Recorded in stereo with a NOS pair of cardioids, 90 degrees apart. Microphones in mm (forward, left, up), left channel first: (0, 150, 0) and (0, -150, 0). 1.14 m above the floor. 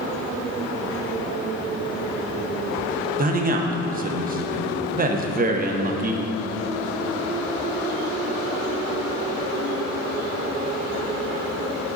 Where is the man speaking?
30° right, 0.8 m.